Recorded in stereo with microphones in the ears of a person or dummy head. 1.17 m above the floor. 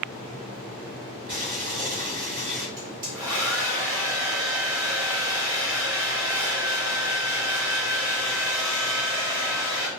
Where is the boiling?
30° right (ahead or behind), 1.1 m.